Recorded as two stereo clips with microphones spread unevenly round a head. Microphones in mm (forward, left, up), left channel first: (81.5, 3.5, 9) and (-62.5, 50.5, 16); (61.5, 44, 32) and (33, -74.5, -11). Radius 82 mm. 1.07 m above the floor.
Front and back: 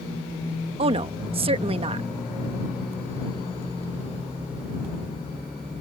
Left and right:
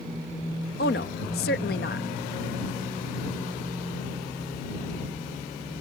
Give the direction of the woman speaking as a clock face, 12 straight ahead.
8 o'clock.